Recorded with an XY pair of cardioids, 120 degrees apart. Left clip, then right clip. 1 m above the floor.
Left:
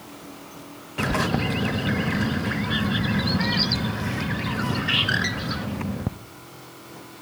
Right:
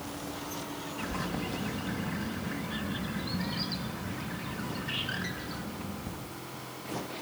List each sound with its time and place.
1.0 s a bird: 70° left, 0.6 m